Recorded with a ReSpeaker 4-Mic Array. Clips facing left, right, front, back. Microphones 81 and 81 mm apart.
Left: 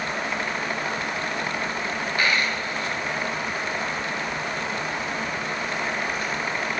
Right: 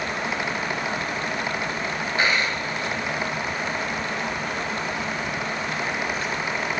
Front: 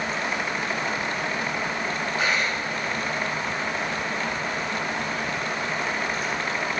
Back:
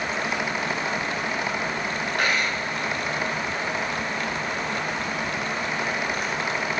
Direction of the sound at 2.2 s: 155° right.